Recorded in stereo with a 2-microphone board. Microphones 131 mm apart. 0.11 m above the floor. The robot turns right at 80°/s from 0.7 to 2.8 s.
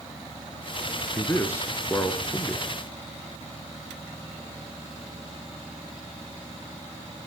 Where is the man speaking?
15° left (ahead or behind), 1.1 m; by 2.6 s centre (ahead or behind), 1.1 m.